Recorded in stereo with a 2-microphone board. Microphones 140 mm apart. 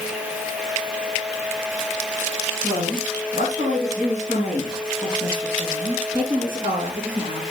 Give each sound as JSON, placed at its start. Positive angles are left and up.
{"t": 2.6, "sound": "a woman speaking", "side_deg": -70, "distance_m": 4.5}